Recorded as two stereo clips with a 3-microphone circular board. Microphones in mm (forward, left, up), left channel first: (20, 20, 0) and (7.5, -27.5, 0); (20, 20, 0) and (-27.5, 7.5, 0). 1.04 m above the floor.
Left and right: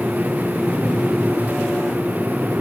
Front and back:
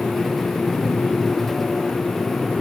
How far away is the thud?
I don't hear a thud.